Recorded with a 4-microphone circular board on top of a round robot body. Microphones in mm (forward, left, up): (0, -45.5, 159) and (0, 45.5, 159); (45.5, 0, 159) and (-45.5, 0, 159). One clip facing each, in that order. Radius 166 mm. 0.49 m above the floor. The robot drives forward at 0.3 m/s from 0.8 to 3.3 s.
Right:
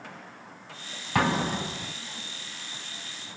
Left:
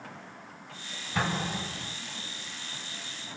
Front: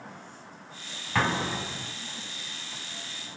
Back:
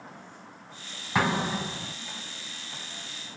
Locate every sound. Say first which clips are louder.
1.1 s an explosion: right 6 dB, back 1 dB; 105° right, 1.5 m; by 1.9 s 110° right, 1.6 m